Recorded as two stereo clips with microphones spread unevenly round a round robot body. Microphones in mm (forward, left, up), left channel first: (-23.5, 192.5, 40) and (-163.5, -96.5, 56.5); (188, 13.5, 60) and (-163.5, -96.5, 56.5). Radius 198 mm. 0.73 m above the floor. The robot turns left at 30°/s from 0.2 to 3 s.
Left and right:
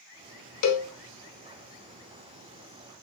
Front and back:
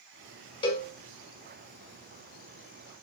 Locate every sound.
0.6 s a cowbell: 95° left, 0.8 m; by 0.9 s 85° left, 0.8 m